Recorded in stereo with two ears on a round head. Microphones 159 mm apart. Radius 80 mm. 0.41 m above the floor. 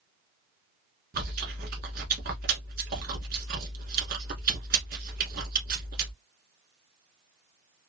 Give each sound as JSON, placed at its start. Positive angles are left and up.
{"t": 1.1, "sound": "chewing", "side_deg": -55, "distance_m": 1.2}